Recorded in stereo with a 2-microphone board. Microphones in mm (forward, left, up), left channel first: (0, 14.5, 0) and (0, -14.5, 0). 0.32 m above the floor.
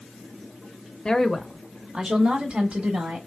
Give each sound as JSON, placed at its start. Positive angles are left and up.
{"t": 1.1, "sound": "a woman speaking", "side_deg": 25, "distance_m": 0.9}